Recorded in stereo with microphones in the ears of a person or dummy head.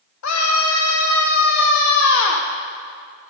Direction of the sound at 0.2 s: 85° left.